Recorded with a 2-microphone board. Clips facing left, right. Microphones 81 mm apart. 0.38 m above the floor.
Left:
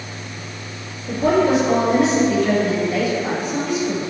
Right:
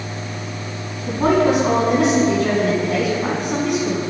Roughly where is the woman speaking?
Right.